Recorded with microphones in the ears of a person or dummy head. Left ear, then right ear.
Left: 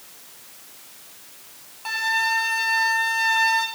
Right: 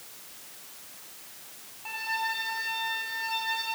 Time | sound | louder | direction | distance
1.9 | a flute | left 9 dB | 85° left | 4 m